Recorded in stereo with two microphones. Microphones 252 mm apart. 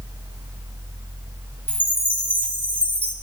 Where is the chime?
5° left (ahead or behind), 1.4 m.